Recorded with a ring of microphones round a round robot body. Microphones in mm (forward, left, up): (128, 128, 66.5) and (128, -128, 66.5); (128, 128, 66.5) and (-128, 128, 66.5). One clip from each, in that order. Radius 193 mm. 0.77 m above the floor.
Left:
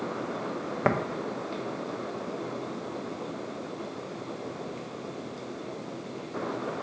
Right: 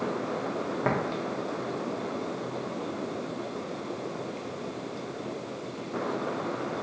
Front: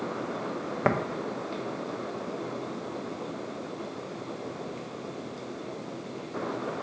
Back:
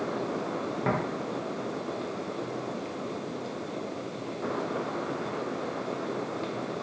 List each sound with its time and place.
0.8 s tapping: 35° left, 0.5 m